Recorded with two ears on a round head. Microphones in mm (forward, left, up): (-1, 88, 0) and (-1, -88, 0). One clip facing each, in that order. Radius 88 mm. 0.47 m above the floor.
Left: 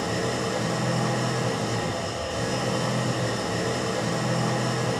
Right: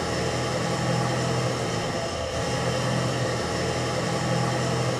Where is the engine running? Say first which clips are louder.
Even; 60° left (ahead or behind), 1.8 m.